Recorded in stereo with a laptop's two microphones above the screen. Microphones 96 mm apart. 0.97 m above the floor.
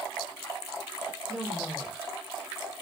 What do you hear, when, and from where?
1.3 s a woman speaking: 5° right (ahead or behind), 0.9 m